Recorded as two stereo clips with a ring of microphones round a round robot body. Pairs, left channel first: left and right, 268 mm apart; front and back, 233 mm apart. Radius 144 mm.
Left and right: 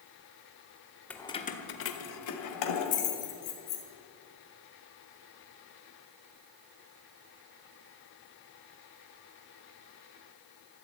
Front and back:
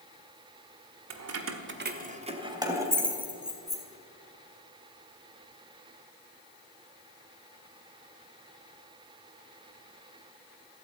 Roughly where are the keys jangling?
Behind.